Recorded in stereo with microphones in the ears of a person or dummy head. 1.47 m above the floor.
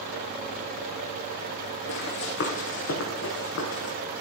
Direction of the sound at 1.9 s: 60° left (ahead or behind).